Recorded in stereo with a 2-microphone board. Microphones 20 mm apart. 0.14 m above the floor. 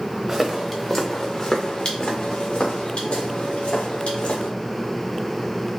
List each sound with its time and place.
0.3 s footsteps: 10° right (ahead or behind), 0.9 m; by 4.5 s 75° left (ahead or behind), 3 m